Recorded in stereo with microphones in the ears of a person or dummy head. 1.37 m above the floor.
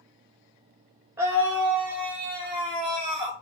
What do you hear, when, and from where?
1.2 s a scream: 15° right (ahead or behind), 0.5 m; by 3.3 s 10° right (ahead or behind), 1.6 m